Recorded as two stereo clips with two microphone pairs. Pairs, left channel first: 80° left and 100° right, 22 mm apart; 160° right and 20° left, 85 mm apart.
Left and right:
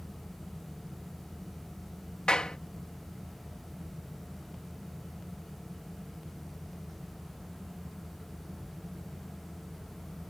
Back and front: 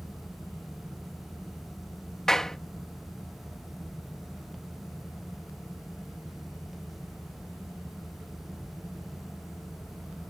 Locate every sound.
2.3 s a clap: 115° left